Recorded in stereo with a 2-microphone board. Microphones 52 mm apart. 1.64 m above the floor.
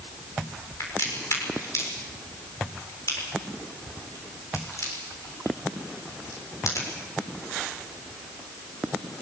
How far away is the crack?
About 7 m.